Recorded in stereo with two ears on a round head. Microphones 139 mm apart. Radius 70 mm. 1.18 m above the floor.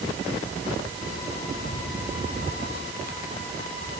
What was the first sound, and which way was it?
Only background noise.